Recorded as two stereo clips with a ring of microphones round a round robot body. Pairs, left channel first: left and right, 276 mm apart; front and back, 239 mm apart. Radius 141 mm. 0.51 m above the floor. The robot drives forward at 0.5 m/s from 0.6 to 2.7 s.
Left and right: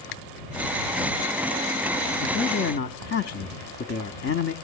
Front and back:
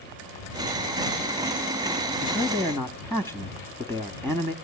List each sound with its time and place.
2.2 s a man speaking: 95° left, 1.1 m; by 4.5 s 115° left, 1.1 m